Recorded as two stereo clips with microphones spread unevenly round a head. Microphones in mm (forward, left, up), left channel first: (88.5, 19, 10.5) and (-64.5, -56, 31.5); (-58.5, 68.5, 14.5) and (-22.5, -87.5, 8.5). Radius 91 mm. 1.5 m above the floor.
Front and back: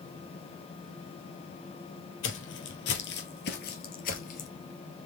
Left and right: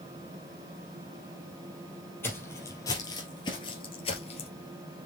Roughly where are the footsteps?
Ahead left.